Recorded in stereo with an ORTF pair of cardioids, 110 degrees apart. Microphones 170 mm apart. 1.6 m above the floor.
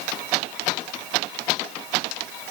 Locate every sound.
Only background noise.